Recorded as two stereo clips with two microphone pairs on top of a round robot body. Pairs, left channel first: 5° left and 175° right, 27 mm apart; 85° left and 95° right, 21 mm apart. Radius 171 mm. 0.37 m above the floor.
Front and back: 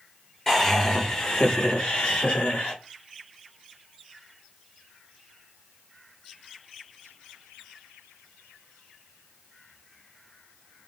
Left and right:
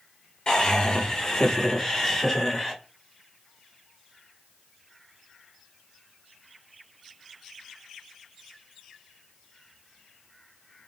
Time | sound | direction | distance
0.5 | laughter | 80° left | 1.4 m